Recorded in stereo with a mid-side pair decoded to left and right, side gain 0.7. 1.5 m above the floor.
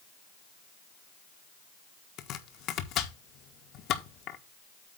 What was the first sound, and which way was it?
Chopping, 55° left.